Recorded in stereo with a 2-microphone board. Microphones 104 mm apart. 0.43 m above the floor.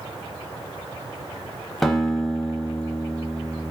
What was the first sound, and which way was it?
A guitar, centre (ahead or behind).